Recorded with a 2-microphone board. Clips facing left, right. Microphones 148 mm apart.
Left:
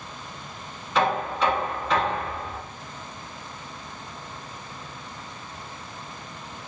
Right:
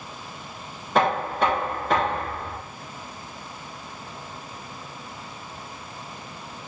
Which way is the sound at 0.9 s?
55° right (ahead or behind).